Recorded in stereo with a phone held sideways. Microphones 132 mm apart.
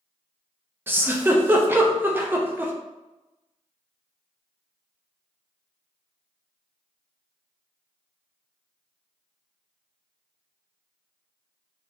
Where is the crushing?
I don't hear crushing.